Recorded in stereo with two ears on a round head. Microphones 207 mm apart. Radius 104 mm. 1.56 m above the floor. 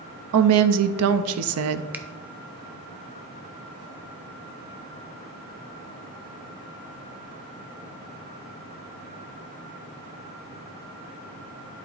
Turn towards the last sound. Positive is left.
turn(degrees=-10)  # may be behind; listen again after turning